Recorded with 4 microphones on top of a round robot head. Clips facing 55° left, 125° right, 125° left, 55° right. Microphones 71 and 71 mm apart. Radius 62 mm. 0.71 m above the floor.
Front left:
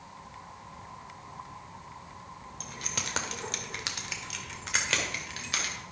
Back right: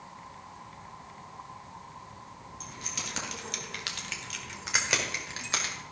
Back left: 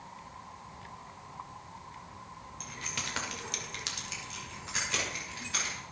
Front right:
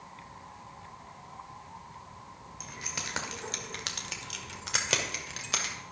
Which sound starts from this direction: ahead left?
Keys jangling, at 2.6 s.